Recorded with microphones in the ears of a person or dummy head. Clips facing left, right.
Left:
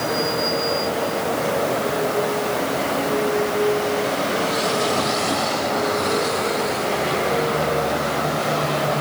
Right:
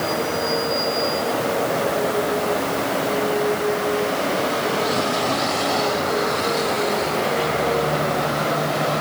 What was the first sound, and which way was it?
Only background noise.